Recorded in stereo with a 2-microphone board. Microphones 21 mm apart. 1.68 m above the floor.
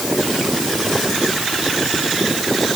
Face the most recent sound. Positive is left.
No sound to turn to.